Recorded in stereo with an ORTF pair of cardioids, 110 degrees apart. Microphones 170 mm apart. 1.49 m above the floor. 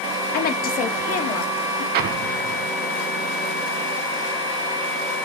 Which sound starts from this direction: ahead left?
A woman speaking, at 0.3 s.